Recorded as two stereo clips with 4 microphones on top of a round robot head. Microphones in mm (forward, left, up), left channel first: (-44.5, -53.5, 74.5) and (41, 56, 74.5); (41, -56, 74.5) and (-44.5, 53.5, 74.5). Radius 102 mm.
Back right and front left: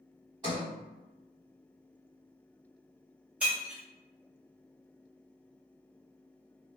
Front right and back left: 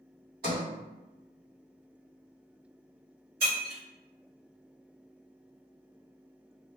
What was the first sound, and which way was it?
A sliding door, 110° left.